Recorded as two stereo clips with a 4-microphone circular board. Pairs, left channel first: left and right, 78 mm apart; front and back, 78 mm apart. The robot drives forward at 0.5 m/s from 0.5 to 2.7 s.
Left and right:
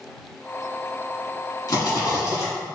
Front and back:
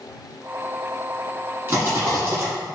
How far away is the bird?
I don't hear a bird.